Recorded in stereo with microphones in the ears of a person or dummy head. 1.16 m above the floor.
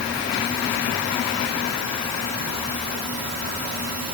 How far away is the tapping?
No tapping in this recording.